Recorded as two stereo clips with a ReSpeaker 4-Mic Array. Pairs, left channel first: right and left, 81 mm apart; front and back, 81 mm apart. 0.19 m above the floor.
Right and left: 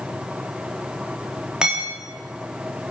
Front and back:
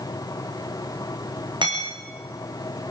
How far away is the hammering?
About 10 m.